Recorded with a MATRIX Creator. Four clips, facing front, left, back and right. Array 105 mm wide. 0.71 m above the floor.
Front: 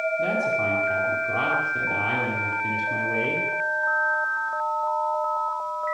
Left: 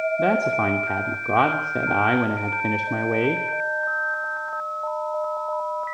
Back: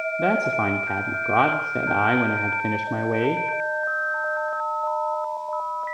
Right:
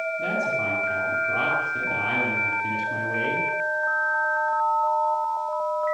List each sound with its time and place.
0.2 s a man speaking: 130° left, 2.5 m